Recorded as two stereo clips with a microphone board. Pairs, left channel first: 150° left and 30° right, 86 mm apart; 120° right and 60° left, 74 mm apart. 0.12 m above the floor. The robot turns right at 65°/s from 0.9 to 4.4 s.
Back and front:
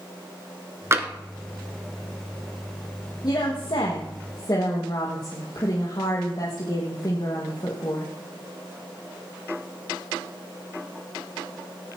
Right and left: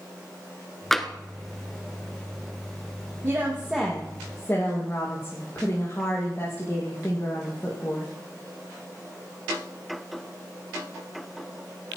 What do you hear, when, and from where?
0.9 s tapping: 40° right, 1.2 m; by 1.1 s 30° right, 1.2 m
3.2 s a woman speaking: 110° left, 4.5 m; by 8.1 s 175° right, 4.5 m